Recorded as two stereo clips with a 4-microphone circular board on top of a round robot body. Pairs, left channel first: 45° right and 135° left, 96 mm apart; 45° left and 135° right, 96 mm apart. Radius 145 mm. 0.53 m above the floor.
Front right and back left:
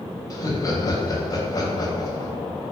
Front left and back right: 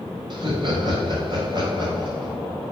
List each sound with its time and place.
0.3 s laughter: 95° right, 4 m